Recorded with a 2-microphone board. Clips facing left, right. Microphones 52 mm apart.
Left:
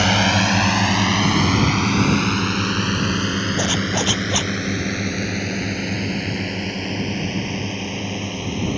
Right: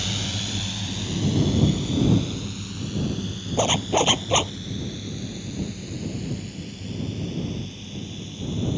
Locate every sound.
0.0 s a drone: 65° left (ahead or behind); by 8.8 s 60° left (ahead or behind)
3.6 s a zipper: 20° right (ahead or behind)